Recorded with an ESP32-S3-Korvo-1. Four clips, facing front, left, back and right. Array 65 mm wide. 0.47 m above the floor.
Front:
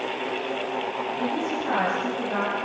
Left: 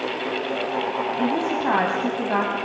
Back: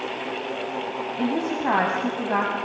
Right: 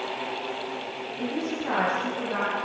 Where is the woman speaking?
135° left, 4 m.